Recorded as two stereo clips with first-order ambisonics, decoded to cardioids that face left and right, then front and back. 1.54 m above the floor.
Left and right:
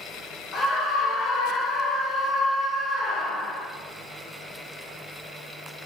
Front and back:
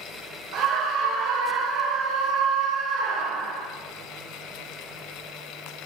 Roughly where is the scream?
Behind left.